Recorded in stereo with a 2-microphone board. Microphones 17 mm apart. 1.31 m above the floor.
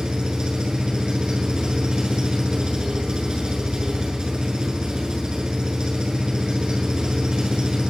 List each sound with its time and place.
0.0 s an engine running: 45° right (ahead or behind), 7.5 m